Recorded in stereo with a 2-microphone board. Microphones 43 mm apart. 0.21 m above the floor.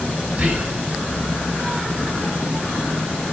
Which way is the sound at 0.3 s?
20° right (ahead or behind).